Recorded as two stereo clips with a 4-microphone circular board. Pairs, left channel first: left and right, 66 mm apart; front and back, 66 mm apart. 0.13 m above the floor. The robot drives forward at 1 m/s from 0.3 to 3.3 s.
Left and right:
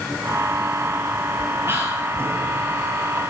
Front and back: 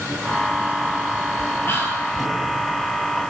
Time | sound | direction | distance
1.6 | whispering | 45° right | 3 m